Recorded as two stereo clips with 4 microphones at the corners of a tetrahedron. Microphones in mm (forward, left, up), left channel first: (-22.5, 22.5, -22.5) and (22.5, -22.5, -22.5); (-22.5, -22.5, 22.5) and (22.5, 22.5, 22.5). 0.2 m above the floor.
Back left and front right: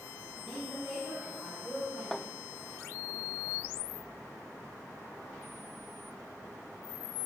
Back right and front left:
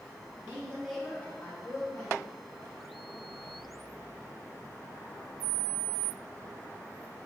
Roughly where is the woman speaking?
Ahead left.